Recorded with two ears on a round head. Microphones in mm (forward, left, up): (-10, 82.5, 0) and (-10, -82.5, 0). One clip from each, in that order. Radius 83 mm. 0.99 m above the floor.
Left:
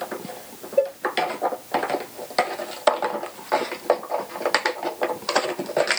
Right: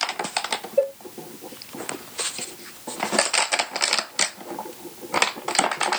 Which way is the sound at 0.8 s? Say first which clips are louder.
Left 1 dB; 15° left (ahead or behind).